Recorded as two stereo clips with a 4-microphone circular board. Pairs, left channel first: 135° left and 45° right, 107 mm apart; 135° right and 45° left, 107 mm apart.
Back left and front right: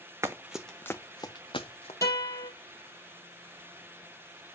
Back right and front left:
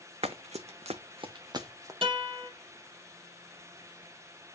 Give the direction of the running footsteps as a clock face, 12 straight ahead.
11 o'clock.